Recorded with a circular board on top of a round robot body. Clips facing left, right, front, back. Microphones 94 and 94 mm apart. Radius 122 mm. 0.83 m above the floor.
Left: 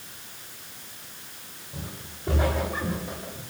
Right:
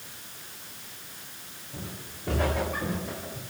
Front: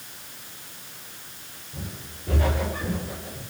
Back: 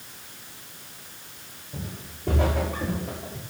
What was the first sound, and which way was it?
Footsteps, 170° left.